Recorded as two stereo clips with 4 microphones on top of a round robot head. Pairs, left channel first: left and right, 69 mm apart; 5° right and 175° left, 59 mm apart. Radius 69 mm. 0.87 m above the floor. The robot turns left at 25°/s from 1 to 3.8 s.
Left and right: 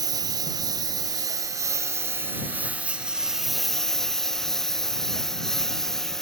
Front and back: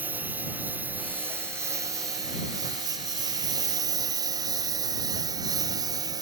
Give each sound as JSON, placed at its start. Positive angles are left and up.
{"t": 0.0, "sound": "a lawn mower", "azimuth_deg": -115}